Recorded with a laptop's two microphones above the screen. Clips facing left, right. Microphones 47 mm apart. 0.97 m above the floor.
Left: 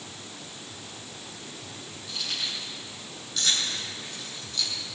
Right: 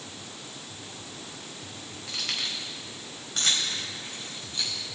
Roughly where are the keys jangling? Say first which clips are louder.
Right 1 dB; right.